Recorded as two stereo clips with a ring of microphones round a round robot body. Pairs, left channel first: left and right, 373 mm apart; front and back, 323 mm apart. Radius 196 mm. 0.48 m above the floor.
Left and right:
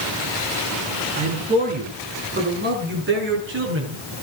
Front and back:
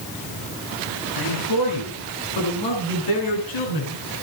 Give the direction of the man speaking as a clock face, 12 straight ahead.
1 o'clock.